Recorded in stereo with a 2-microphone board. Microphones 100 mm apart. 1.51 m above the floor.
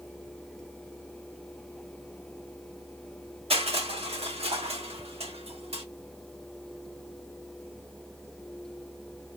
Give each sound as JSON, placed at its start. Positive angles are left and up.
{"t": 3.5, "sound": "crushing", "side_deg": -85, "distance_m": 1.1}